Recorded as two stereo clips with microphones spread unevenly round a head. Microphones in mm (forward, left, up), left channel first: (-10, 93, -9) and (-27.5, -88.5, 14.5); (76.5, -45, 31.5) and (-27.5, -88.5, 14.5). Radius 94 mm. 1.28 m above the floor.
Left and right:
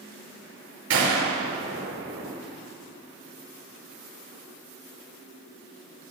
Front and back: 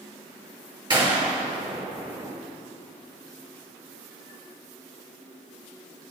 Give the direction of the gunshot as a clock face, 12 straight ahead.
4 o'clock.